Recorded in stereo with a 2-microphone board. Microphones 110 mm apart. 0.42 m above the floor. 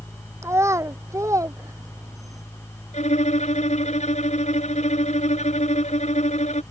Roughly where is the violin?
Left.